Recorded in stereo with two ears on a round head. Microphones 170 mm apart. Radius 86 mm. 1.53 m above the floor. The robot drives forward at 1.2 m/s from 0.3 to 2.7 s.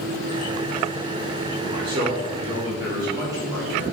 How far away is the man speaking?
About 2.5 m.